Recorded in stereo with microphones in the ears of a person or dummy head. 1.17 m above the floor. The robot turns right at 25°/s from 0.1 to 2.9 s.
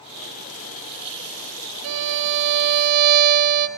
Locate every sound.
1.8 s a violin: 75° right (ahead or behind), 1.4 m; by 3.7 s 50° right (ahead or behind), 1.4 m